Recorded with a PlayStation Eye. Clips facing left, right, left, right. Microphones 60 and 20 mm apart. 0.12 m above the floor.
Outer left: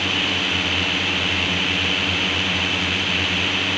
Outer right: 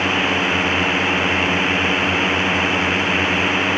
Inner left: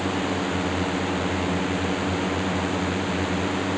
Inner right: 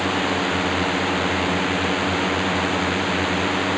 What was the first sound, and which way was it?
A drone, 30° right (ahead or behind).